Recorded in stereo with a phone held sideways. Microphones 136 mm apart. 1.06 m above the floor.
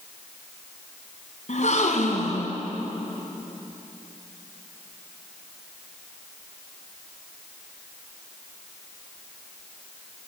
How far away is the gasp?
About 3.5 m.